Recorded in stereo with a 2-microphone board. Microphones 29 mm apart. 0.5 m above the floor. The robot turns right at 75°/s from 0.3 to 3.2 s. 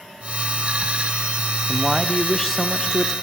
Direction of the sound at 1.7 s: 5° right (ahead or behind).